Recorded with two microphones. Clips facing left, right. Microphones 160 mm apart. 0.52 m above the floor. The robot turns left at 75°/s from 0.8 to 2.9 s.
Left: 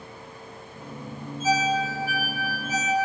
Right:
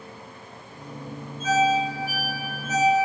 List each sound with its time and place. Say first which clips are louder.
1.4 s a ringtone: right 3 dB; 55° right (ahead or behind), 0.9 m; by 3.0 s 40° left (ahead or behind), 0.9 m